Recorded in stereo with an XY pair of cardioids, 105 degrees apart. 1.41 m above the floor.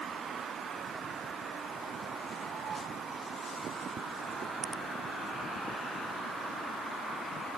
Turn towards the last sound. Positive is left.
No sound to turn to.